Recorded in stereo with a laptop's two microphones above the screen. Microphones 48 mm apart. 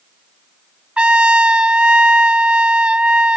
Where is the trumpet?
25° right (ahead or behind).